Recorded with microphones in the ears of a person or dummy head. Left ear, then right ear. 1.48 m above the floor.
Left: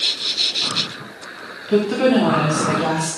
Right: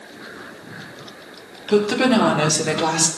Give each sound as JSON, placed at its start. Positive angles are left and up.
{"t": 1.7, "sound": "a woman speaking", "side_deg": -20, "distance_m": 2.5}